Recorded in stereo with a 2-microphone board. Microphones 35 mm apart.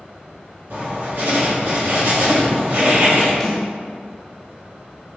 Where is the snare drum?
15° left (ahead or behind), 1.3 m.